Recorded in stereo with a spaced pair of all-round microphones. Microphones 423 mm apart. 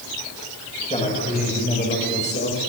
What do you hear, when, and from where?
0.9 s a man speaking: 15° left (ahead or behind), 7.5 m; by 2.6 s 25° left (ahead or behind), 6 m